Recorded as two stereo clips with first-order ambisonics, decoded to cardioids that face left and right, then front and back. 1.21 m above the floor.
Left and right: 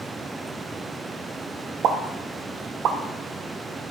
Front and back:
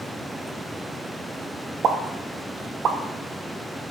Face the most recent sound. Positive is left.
turn(degrees=-130)